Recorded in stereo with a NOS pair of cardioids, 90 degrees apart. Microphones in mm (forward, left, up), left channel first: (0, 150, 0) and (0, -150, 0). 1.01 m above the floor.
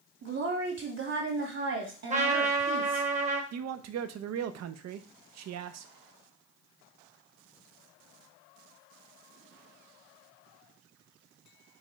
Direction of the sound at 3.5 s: 60° right.